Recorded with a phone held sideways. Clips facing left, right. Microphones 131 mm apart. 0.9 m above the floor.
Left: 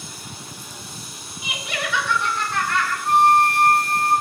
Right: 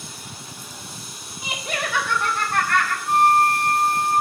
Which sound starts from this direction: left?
A flute, at 3.0 s.